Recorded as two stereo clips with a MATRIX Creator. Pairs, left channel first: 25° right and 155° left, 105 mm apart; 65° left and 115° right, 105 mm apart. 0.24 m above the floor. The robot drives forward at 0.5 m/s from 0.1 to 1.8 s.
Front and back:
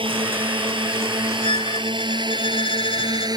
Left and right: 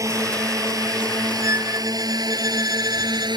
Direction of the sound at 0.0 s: 170° right.